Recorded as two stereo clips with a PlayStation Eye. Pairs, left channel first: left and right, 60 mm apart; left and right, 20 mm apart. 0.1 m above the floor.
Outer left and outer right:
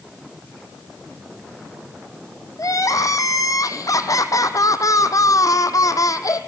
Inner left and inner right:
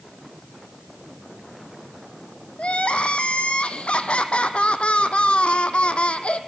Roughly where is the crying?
Left.